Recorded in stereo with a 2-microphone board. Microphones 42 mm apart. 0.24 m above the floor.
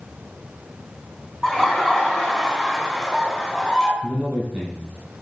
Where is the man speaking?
30° right (ahead or behind), 2.5 m.